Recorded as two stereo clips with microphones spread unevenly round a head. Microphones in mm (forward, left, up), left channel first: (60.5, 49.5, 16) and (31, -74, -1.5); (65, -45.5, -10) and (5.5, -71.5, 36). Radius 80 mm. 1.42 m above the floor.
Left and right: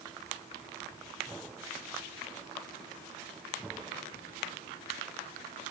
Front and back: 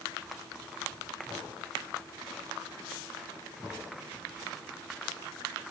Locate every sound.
Only background noise.